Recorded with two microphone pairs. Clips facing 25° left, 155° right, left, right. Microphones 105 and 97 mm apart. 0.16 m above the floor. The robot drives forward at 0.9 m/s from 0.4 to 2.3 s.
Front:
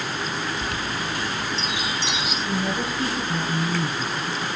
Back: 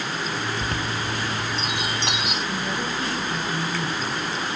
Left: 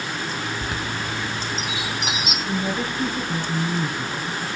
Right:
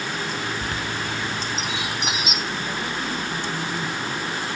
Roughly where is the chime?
Behind left.